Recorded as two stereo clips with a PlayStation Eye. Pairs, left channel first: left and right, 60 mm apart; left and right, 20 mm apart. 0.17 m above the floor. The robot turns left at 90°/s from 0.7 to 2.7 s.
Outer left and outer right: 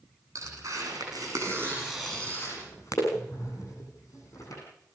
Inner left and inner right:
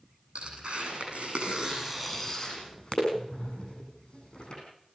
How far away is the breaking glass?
No breaking glass in this recording.